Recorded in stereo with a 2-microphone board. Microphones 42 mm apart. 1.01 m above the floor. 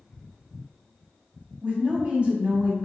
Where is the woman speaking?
30° right (ahead or behind), 1.2 m.